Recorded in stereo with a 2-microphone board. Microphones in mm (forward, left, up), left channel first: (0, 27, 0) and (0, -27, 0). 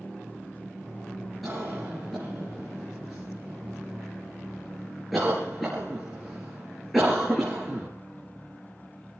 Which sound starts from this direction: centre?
A cough, at 1.4 s.